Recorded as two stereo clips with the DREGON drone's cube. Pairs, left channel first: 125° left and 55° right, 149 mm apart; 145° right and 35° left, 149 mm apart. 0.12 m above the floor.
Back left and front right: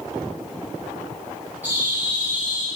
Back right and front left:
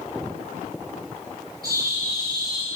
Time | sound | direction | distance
1.6 | a bird | 20° left | 3.5 m